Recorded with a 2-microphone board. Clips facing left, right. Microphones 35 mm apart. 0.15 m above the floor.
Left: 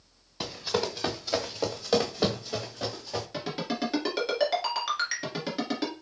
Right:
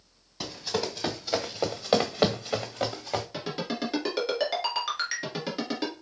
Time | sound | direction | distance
0.4 | running footsteps | 20° left (ahead or behind) | 1.1 m
3.3 | a ringtone | centre (ahead or behind) | 1.6 m